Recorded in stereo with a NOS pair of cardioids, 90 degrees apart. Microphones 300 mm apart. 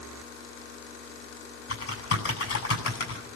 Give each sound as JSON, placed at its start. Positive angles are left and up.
{"t": 1.7, "sound": "typing on a keyboard", "azimuth_deg": 50, "distance_m": 9.5}